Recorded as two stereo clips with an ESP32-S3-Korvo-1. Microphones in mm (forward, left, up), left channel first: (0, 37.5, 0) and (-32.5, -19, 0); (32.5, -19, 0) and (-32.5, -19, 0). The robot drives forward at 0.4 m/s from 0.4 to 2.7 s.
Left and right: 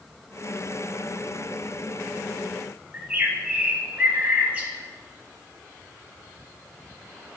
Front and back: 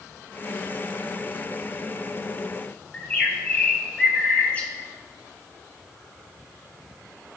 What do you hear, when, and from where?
2.9 s a bird: 60° right, 1.8 m